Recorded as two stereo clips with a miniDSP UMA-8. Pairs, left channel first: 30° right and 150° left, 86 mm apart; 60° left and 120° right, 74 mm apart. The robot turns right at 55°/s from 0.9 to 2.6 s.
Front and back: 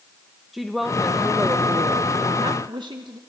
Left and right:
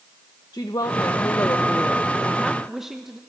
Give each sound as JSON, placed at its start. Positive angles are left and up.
{"t": 0.5, "sound": "a woman speaking", "azimuth_deg": 65, "distance_m": 1.1}